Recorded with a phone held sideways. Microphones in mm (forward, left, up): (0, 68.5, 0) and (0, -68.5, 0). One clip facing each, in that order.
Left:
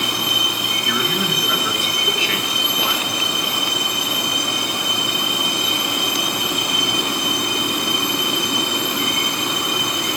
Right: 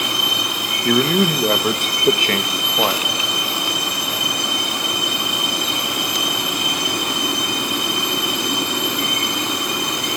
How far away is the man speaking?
About 1.7 m.